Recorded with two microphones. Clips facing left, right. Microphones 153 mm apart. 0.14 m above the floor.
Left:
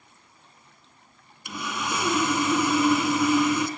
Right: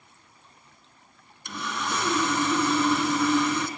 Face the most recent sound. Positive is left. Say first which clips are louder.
# left 1 dB
turn(degrees=10)  # may be behind; listen again after turning